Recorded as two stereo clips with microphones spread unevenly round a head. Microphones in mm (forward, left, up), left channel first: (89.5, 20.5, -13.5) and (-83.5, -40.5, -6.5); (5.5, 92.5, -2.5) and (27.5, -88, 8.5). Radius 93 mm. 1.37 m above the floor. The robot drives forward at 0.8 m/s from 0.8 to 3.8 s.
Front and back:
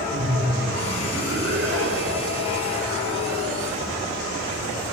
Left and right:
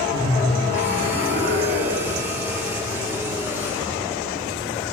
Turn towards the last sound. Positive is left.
turn(degrees=-145)